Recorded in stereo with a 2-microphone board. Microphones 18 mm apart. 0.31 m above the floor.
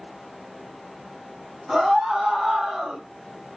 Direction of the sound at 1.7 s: 45° right (ahead or behind).